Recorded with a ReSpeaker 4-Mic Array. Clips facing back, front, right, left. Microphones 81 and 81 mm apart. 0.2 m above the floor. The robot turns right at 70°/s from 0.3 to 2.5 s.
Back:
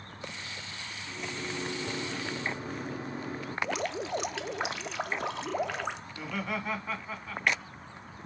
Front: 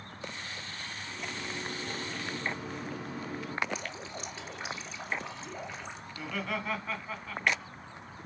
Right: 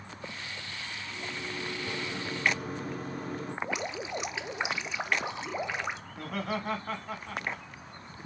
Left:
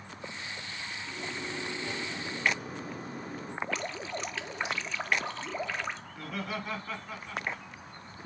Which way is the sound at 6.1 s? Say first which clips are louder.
Back 1 dB, right 3 dB; 95° right.